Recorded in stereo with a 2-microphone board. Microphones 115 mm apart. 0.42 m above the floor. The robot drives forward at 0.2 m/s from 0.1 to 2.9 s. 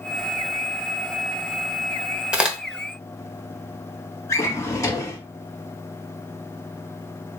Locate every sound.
2.3 s a crack: 10° right (ahead or behind), 0.6 m
4.3 s a drawer: 25° left (ahead or behind), 0.8 m